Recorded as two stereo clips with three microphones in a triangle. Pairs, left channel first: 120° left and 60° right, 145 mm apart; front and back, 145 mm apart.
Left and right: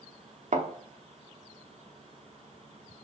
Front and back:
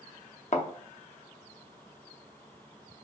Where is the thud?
35° right, 0.6 m.